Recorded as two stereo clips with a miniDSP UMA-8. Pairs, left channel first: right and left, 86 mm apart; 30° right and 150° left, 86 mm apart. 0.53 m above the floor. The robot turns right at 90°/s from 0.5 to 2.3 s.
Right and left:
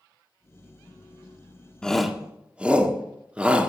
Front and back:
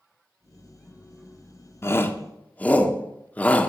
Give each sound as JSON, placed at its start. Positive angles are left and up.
{"t": 1.8, "sound": "a shout", "azimuth_deg": -20, "distance_m": 0.9}